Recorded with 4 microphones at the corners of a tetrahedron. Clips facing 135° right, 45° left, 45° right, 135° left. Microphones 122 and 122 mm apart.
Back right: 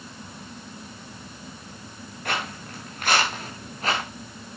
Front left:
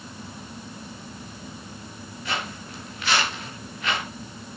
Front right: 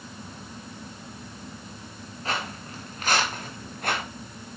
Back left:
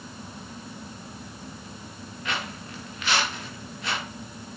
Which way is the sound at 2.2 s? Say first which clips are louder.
Back right 2 dB, front right 2 dB; 100° right.